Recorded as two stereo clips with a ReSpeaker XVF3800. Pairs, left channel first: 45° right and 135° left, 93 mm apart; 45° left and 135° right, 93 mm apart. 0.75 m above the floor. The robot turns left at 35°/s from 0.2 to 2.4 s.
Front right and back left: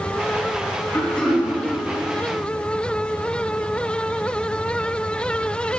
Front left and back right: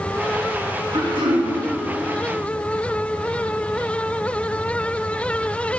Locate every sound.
0.9 s throat clearing: 115° right, 1.8 m; by 1.5 s 135° right, 1.8 m